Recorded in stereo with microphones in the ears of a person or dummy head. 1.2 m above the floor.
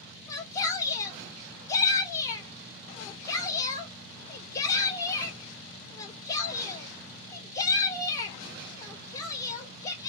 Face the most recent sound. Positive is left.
turn(degrees=20)  # may be behind; listen again after turning